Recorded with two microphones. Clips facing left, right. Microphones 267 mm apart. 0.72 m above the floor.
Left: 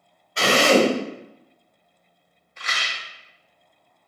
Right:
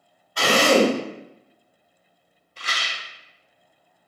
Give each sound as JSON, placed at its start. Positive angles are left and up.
{"t": 0.4, "sound": "a drill", "side_deg": 25, "distance_m": 1.0}
{"t": 2.6, "sound": "a rattle", "side_deg": -35, "distance_m": 0.5}